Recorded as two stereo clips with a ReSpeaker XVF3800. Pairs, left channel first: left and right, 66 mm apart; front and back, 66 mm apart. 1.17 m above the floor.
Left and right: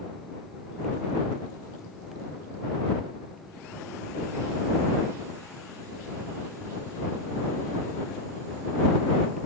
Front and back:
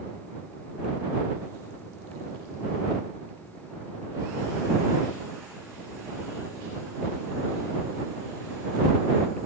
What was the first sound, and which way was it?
Only background noise.